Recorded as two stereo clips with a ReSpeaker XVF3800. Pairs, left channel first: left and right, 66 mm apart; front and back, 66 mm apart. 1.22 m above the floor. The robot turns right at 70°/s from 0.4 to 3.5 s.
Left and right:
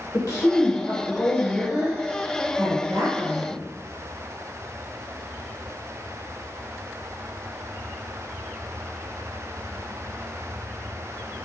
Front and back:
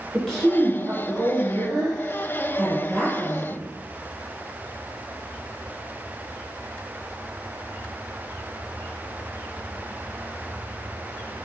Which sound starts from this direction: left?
A woman speaking, at 0.1 s.